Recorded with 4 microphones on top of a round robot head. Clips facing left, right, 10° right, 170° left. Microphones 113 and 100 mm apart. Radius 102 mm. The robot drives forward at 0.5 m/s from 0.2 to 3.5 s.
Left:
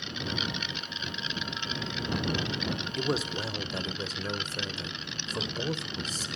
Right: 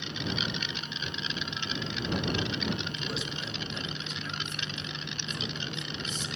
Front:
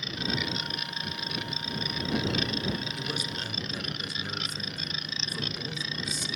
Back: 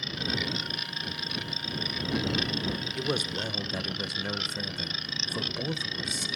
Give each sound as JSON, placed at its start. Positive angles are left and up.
{"t": 3.0, "sound": "a man speaking", "azimuth_deg": 135, "distance_m": 1.0}